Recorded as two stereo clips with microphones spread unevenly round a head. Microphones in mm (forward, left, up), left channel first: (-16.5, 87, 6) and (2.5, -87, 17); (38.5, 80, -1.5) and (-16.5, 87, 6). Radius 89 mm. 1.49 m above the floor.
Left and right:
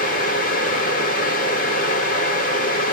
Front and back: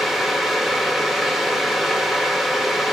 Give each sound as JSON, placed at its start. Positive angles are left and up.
{"t": 0.0, "sound": "a fan", "azimuth_deg": 100, "distance_m": 1.4}